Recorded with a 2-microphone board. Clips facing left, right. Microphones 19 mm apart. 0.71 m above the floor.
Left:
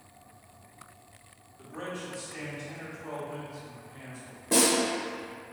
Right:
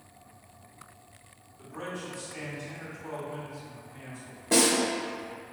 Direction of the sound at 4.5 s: 20° right (ahead or behind).